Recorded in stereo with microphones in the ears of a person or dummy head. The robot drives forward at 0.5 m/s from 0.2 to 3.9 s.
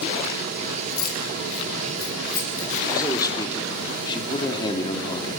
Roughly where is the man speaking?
Left.